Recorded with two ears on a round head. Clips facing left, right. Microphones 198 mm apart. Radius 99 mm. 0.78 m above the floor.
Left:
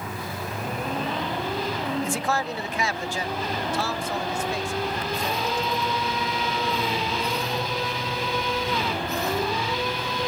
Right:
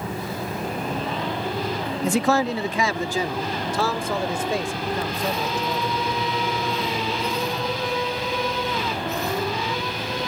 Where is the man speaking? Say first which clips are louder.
Right 7 dB; 50° right (ahead or behind); by 6.0 s 60° right (ahead or behind).